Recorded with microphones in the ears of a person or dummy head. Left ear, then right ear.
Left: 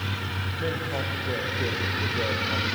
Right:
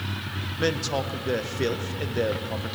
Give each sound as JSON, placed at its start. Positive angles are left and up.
{"t": 0.6, "sound": "a man speaking", "side_deg": -75, "distance_m": 0.7}